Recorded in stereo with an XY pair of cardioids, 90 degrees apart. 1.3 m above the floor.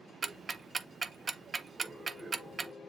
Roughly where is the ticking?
Ahead right.